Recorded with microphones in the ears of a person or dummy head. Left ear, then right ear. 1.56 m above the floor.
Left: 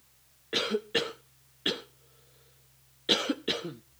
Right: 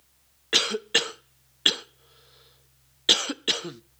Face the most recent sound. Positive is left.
turn(degrees=-40)  # may be behind; listen again after turning